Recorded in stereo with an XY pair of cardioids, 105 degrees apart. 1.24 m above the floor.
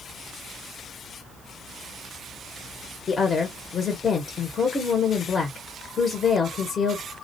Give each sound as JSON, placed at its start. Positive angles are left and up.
{"t": 3.1, "sound": "a woman speaking", "azimuth_deg": 40, "distance_m": 0.9}